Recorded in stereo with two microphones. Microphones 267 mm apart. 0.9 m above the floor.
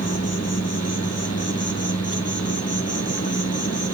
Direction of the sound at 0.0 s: 65° left (ahead or behind).